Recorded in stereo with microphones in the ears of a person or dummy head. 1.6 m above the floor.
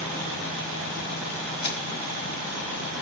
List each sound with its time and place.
1.6 s crushing: 70° left (ahead or behind), 3.5 m